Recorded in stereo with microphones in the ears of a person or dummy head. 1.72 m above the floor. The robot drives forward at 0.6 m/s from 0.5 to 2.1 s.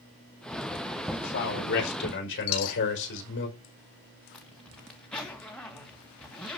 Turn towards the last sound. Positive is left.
turn(degrees=5)  # may be behind; listen again after turning